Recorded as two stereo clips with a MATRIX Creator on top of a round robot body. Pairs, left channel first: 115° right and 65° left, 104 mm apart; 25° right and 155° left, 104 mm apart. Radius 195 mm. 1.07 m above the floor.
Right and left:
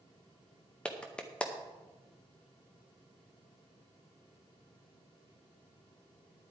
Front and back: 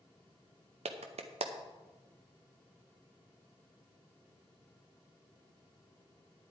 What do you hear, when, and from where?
0.8 s a clap: 165° left, 0.8 m